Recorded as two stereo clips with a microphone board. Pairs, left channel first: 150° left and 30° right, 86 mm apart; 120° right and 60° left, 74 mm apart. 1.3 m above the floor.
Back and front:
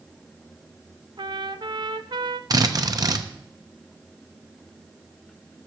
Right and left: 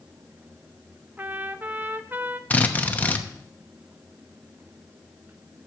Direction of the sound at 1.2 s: Straight ahead.